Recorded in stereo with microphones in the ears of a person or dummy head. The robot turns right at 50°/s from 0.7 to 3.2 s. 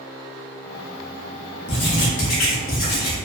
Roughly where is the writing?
Ahead left.